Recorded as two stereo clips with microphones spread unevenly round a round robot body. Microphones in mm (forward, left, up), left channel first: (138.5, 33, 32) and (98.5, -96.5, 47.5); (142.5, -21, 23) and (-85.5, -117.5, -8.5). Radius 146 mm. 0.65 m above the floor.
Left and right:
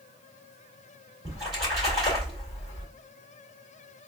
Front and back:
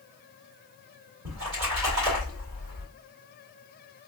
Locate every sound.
1.2 s a splash: 155° left, 2.5 m